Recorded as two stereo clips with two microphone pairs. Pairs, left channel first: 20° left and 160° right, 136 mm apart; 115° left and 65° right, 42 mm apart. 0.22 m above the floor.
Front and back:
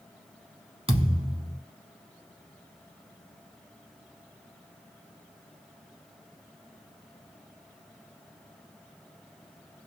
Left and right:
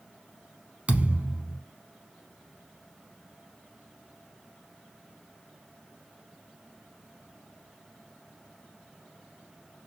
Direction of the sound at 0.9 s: 120° right.